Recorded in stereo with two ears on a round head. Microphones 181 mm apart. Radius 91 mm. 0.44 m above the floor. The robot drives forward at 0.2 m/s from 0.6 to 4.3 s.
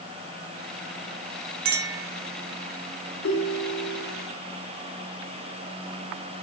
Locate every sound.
1.6 s a clink: 45° right (ahead or behind), 0.5 m
3.2 s a ringtone: 65° left (ahead or behind), 1.5 m